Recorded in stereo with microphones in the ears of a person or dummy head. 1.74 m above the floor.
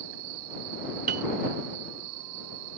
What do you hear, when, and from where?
0.0 s an insect: 80° right
1.1 s a piano: 45° right (ahead or behind)